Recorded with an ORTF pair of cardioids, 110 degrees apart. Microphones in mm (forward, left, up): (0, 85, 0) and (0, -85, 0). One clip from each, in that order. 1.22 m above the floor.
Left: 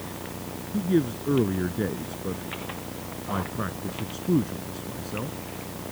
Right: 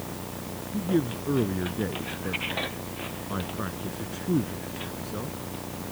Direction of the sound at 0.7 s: 15° left.